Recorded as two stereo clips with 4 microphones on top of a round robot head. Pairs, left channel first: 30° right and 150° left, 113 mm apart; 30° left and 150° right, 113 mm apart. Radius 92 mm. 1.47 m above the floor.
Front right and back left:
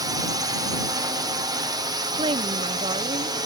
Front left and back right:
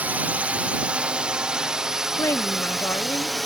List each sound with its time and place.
0.0 s a drone: 145° left; by 3.5 s 120° left
2.2 s a woman speaking: 100° left